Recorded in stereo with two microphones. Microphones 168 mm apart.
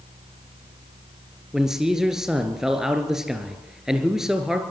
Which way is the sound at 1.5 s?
5° right (ahead or behind).